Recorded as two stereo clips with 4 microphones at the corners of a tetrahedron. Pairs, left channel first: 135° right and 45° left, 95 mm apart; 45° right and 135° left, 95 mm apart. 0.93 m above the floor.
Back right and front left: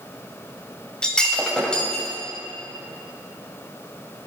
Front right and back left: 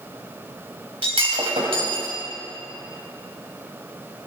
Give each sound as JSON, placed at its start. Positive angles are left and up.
{"t": 1.0, "sound": "breaking glass", "azimuth_deg": 145, "distance_m": 2.5}